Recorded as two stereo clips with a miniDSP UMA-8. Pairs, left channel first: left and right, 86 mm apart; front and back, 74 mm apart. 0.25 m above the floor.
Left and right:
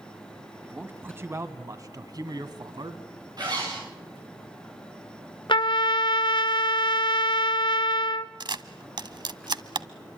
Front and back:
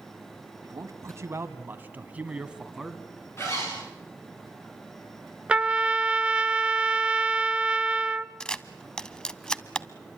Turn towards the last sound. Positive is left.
turn(degrees=-75)